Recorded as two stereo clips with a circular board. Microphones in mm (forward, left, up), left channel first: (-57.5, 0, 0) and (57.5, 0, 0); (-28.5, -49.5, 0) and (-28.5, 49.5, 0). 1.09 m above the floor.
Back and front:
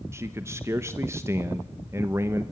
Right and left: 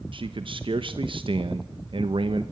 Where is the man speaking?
65° left, 1.0 m.